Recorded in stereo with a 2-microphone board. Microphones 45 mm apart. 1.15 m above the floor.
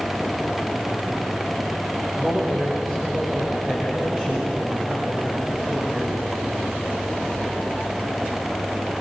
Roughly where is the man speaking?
Right.